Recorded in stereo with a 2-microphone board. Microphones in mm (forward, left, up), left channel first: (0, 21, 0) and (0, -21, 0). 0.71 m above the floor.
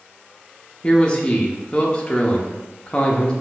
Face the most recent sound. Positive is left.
turn(degrees=20)  # may be behind; listen again after turning